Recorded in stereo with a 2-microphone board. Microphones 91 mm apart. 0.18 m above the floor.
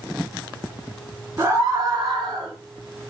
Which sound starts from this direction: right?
A scream, at 1.4 s.